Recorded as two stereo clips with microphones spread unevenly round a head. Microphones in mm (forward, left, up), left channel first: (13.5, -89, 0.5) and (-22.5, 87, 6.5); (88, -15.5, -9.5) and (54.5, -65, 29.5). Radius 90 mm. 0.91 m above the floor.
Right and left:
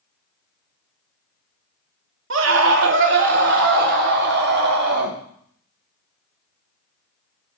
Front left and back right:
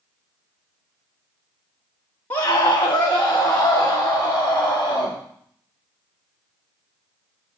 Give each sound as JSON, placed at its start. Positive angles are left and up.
{"t": 2.3, "sound": "a scream", "azimuth_deg": 110, "distance_m": 2.5}